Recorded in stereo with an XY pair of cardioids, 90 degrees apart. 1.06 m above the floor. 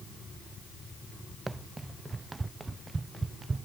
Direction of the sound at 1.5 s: 25° right.